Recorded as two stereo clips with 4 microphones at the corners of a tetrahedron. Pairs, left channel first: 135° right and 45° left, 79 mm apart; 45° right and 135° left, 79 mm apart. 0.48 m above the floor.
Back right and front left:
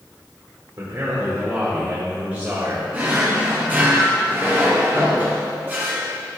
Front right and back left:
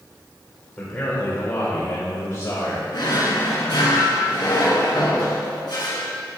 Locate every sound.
0.8 s a man speaking: 20° left, 1.8 m; by 2.8 s 20° right, 2.5 m
2.9 s a drawer: 20° right, 3 m